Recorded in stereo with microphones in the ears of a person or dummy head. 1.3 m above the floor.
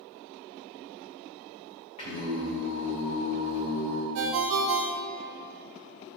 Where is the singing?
35° left (ahead or behind), 2 m.